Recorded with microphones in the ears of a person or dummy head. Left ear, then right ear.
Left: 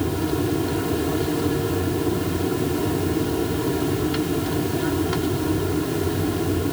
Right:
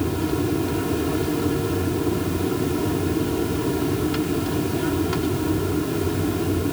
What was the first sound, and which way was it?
An aircraft, centre (ahead or behind).